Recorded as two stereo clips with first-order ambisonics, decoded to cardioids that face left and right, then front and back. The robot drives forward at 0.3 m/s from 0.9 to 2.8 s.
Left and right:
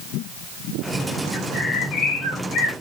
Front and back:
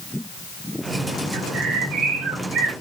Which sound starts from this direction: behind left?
A bird, at 1.3 s.